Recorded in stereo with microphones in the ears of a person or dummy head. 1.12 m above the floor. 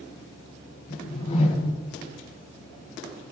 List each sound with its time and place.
0.9 s a whoosh: 35° left (ahead or behind), 1.7 m